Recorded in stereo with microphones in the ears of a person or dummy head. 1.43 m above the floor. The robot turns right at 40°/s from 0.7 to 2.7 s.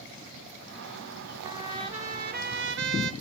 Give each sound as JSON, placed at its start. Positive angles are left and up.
{"t": 1.4, "sound": "a trumpet", "azimuth_deg": -165, "distance_m": 0.6}